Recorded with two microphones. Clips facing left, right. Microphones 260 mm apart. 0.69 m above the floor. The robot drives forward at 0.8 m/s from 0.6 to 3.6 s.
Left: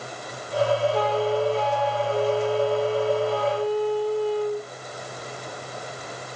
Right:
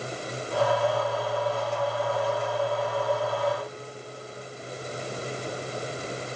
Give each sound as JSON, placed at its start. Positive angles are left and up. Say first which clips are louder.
{"t": 0.9, "sound": "a flute", "louder": "left 6 dB", "side_deg": 85}